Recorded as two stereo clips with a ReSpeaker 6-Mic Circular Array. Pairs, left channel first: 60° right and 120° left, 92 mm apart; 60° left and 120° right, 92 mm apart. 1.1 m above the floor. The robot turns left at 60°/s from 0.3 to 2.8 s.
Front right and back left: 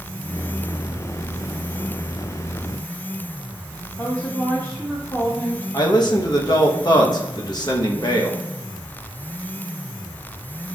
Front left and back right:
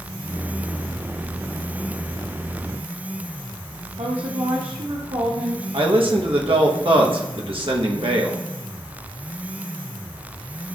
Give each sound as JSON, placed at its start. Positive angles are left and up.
{"t": 4.0, "sound": "a woman speaking", "azimuth_deg": -125, "distance_m": 0.9}
{"t": 5.7, "sound": "a man speaking", "azimuth_deg": -100, "distance_m": 1.1}